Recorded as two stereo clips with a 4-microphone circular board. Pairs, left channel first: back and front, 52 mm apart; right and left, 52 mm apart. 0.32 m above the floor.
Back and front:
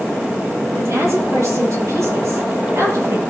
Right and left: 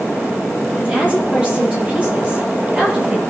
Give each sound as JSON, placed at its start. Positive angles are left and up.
{"t": 0.8, "sound": "a woman speaking", "azimuth_deg": 25, "distance_m": 7.5}